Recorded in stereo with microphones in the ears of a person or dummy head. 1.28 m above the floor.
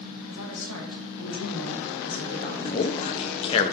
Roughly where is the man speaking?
Left.